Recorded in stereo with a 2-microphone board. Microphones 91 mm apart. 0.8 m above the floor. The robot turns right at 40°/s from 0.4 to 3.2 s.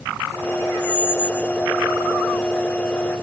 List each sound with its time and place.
0.8 s a squeak: 10° left (ahead or behind), 3 m; by 1.5 s 15° right (ahead or behind), 3 m